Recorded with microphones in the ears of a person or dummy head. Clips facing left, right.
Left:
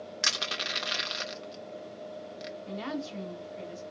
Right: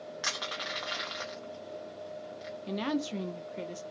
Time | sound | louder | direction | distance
0.2 | crushing | left 1 dB | 35° left (ahead or behind) | 0.9 m
2.7 | a woman speaking | right 5 dB | 50° right (ahead or behind) | 0.8 m